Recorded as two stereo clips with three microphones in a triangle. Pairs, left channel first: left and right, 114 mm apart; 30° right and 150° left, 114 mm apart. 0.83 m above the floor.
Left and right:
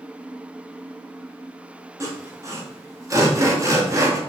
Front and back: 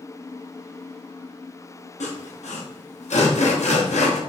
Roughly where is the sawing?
Ahead right.